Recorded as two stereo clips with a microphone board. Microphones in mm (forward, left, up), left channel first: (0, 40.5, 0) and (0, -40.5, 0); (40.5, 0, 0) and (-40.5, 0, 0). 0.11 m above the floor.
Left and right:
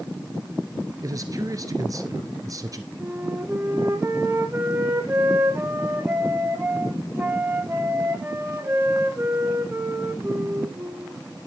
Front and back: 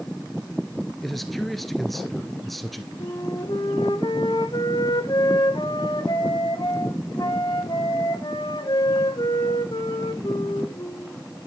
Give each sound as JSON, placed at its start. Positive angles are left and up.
{"t": 1.0, "sound": "a man speaking", "azimuth_deg": -90, "distance_m": 1.5}
{"t": 3.0, "sound": "a flute", "azimuth_deg": -30, "distance_m": 1.2}